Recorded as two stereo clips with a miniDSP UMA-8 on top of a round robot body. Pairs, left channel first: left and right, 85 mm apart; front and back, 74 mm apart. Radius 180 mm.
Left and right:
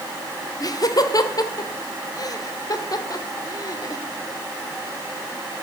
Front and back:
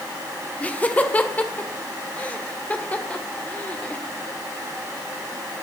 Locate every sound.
0.6 s laughter: 65° left, 2.0 m